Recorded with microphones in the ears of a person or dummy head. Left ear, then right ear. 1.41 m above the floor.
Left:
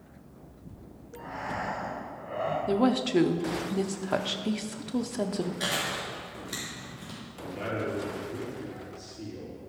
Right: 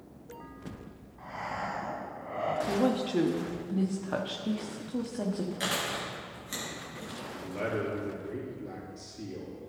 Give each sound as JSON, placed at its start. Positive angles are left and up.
{"t": 1.2, "sound": "breathing", "side_deg": -5, "distance_m": 1.4}
{"t": 2.7, "sound": "a woman speaking", "side_deg": 20, "distance_m": 0.5}
{"t": 5.6, "sound": "chewing", "side_deg": -35, "distance_m": 2.5}
{"t": 7.4, "sound": "a man speaking", "side_deg": -85, "distance_m": 3.5}